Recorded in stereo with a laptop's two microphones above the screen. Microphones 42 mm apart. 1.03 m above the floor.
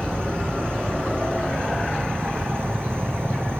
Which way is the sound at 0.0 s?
75° right (ahead or behind).